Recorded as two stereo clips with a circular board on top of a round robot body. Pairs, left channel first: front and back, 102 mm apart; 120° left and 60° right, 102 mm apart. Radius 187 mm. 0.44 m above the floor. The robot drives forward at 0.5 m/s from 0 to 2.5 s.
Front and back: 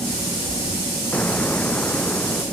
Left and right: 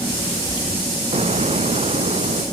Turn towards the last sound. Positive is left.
turn(degrees=-80)